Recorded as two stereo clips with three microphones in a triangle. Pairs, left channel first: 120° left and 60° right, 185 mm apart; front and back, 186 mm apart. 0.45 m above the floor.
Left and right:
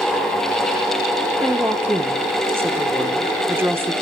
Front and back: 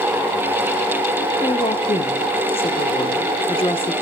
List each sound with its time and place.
1.4 s a woman speaking: 5° left, 1.1 m